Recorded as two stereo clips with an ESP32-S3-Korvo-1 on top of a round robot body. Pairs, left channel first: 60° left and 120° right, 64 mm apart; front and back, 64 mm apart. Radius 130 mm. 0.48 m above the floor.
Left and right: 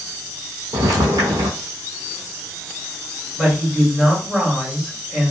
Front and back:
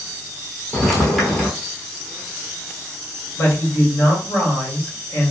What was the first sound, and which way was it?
Footsteps, 85° right.